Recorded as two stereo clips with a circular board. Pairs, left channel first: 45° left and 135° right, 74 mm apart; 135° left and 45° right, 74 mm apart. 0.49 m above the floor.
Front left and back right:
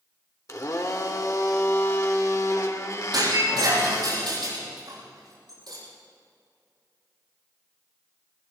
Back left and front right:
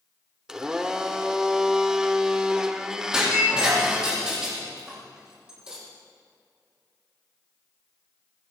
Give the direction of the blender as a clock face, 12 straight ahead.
11 o'clock.